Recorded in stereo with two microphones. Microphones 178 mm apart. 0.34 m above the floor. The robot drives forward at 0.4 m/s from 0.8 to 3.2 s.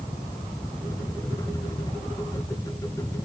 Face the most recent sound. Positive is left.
No sound to turn to.